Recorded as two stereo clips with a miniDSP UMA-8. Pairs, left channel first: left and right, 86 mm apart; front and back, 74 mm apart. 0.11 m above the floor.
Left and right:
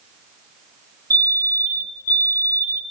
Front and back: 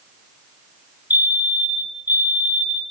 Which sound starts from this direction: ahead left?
A fire alarm, at 1.1 s.